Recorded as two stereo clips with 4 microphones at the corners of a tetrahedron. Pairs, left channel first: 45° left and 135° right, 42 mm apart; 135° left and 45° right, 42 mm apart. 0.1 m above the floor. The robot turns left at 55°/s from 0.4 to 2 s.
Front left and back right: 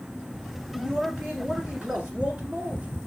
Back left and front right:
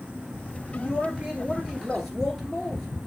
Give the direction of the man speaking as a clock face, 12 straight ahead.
2 o'clock.